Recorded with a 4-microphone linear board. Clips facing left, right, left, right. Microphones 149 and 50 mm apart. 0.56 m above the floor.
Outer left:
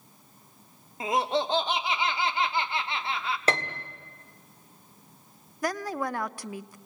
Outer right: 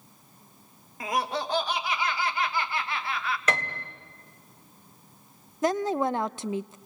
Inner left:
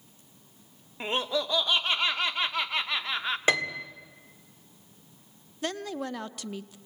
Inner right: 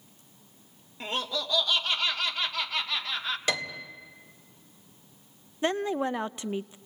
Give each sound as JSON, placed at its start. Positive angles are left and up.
{"t": 1.0, "sound": "laughter", "side_deg": 25, "distance_m": 0.9}
{"t": 3.5, "sound": "a piano", "side_deg": 30, "distance_m": 1.6}
{"t": 5.6, "sound": "a woman speaking", "side_deg": -25, "distance_m": 0.6}